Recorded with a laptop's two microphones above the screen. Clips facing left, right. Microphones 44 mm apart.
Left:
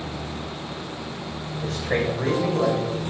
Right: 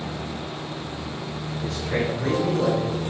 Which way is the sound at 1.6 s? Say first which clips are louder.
Left 2 dB; 55° left (ahead or behind).